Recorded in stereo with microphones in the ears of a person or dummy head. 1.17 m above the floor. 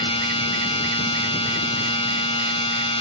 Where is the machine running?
30° left (ahead or behind).